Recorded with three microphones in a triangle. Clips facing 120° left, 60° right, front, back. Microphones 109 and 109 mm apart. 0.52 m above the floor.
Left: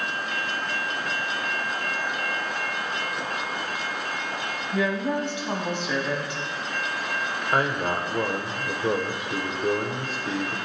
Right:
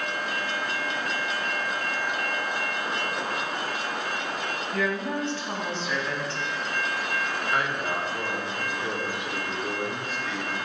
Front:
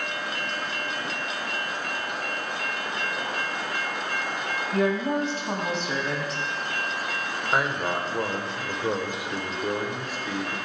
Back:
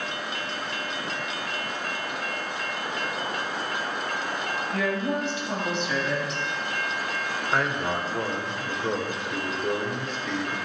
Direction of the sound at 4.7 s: 45° left.